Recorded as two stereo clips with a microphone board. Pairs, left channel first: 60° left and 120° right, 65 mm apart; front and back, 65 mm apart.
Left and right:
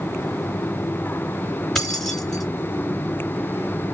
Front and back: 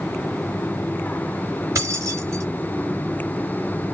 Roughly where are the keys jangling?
Behind left.